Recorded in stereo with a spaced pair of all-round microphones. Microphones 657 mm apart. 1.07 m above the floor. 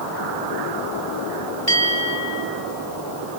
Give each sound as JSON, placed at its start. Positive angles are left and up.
{"t": 1.7, "sound": "a bell", "side_deg": 75, "distance_m": 3.5}